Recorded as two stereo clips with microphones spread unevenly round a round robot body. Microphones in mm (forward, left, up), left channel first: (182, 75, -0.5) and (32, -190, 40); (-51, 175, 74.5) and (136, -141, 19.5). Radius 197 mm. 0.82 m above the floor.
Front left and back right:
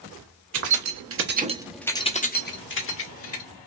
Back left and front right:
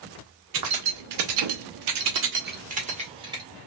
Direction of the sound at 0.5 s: 95° right.